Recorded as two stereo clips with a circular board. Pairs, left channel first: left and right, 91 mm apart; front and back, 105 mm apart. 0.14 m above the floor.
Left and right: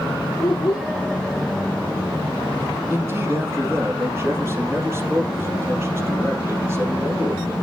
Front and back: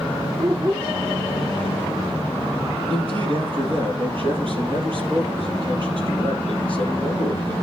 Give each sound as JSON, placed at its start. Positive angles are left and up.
{"t": 0.4, "sound": "a child speaking", "azimuth_deg": 155, "distance_m": 7.5}
{"t": 2.9, "sound": "a man speaking", "azimuth_deg": -150, "distance_m": 3.5}